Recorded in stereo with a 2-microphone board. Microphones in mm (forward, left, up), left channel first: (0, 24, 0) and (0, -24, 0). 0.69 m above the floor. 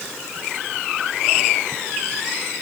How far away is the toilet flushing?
No toilet flushing in this recording.